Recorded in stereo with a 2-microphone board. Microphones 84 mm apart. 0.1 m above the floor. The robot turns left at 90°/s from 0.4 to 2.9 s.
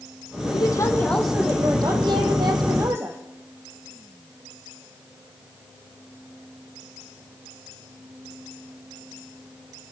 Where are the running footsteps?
No running footsteps in this recording.